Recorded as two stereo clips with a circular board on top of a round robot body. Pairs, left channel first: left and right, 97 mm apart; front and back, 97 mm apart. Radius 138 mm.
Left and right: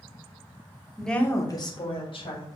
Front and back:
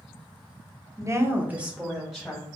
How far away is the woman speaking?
About 1.1 m.